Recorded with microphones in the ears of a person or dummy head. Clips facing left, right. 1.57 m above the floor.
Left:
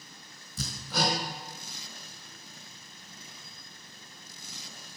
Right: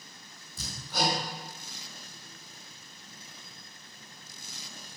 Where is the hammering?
70° left (ahead or behind), 3.5 m.